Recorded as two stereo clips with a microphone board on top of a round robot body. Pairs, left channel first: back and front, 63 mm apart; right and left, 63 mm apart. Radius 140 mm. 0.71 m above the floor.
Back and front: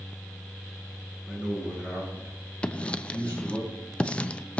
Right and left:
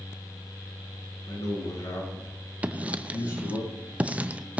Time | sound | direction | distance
1.3 | a man speaking | 75° right | 8.5 m
2.6 | writing | 130° left | 0.9 m